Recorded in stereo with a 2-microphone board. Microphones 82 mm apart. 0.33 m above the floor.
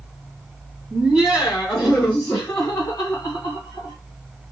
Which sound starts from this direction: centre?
Laughter, at 0.9 s.